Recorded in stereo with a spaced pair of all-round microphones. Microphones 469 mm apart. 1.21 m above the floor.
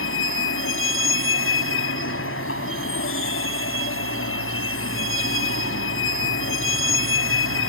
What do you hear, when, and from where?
0.0 s a vehicle: 25° left (ahead or behind)